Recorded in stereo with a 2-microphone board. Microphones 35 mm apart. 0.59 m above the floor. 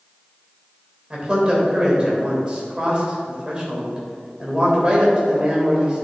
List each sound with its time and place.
1.1 s a man speaking: 25° right (ahead or behind), 3 m